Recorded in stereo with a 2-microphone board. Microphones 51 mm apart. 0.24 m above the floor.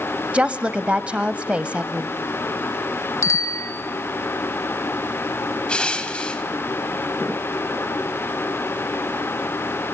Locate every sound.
0.3 s a woman speaking: 25° right (ahead or behind), 1.0 m
3.2 s a bicycle bell: 70° left (ahead or behind), 2 m
5.7 s crushing: 20° left (ahead or behind), 1.7 m